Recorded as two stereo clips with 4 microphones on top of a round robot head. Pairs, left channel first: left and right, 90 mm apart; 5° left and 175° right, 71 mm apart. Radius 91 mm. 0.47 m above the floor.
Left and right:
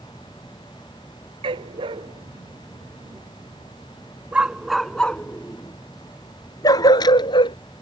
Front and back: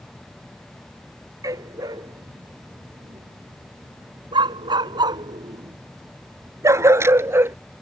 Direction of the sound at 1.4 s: 125° right.